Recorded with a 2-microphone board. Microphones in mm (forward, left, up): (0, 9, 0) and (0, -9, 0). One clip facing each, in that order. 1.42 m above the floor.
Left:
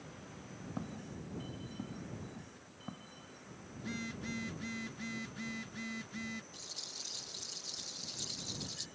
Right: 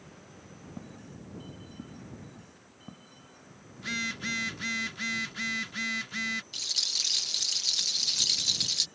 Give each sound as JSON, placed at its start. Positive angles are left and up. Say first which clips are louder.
{"t": 0.8, "sound": "footsteps", "louder": "left 2 dB", "side_deg": 40}
{"t": 3.8, "sound": "a phone buzzing", "louder": "right 10 dB", "side_deg": -45}
{"t": 6.5, "sound": "a rattle", "louder": "right 16 dB", "side_deg": -80}